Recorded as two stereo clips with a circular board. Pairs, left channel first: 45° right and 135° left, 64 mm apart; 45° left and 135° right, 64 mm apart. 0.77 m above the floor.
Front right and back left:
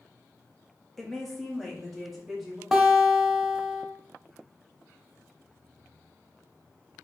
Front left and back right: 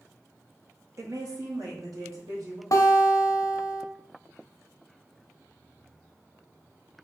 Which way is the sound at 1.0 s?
135° right.